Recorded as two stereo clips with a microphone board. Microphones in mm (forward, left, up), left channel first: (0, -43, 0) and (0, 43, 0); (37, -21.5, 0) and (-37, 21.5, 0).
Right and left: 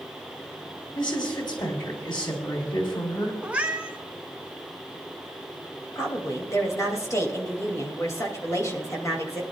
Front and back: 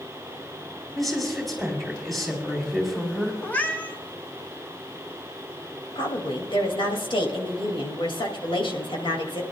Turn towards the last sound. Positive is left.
turn(degrees=-35)